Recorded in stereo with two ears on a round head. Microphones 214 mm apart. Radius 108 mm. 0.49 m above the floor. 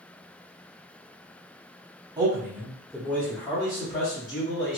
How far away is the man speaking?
About 1.1 m.